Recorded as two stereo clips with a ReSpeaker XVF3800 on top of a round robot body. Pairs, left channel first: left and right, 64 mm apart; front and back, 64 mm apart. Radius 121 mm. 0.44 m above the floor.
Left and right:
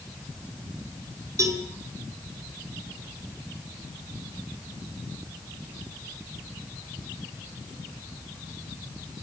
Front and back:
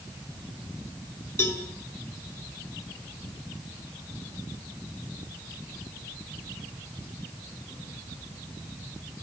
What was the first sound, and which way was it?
A cowbell, 50° right.